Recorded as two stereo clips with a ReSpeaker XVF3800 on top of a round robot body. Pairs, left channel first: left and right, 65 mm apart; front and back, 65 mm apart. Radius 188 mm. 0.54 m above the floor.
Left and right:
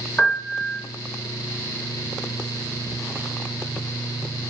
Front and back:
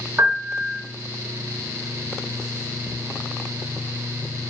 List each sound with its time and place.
0.2 s a piano: 175° left, 1.3 m